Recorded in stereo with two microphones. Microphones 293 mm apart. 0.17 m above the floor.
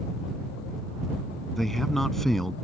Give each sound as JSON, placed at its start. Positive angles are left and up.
{"t": 1.6, "sound": "a man speaking", "side_deg": 0}